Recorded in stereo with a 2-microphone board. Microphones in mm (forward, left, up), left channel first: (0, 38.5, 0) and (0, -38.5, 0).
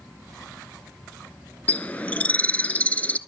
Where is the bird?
20° left (ahead or behind), 0.7 m.